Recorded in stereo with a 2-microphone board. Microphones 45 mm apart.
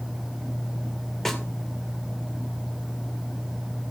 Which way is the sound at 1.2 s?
5° left (ahead or behind).